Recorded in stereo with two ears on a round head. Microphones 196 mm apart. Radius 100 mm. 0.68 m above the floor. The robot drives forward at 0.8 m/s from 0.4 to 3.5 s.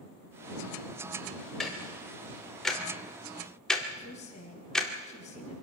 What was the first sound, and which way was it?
Ticking, centre (ahead or behind).